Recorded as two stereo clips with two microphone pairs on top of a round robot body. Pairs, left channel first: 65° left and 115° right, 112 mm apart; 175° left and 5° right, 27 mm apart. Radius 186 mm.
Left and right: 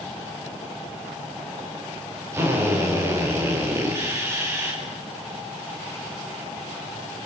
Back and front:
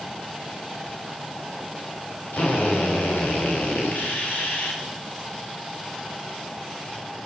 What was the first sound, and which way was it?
A drill, straight behind.